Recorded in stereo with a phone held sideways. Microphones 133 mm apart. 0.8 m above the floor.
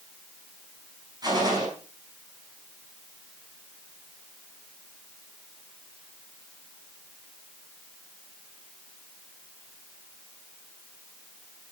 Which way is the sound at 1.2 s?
30° right (ahead or behind).